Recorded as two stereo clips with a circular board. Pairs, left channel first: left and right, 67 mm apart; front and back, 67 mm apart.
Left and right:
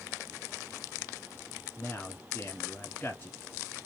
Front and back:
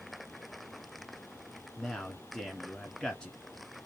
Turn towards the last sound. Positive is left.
turn(degrees=65)